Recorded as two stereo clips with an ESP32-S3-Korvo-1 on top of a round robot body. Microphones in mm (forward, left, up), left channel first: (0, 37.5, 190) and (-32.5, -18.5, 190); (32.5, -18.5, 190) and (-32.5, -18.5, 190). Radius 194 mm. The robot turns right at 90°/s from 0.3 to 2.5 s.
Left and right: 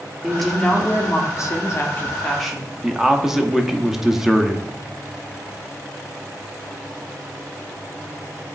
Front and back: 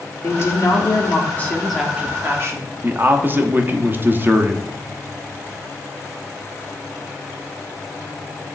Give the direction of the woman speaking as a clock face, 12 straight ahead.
1 o'clock.